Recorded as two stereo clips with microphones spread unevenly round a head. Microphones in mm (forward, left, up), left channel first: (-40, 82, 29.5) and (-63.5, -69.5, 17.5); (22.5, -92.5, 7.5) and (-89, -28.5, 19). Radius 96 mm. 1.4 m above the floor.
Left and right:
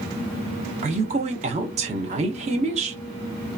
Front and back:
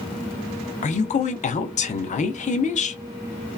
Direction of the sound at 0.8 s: 50° right.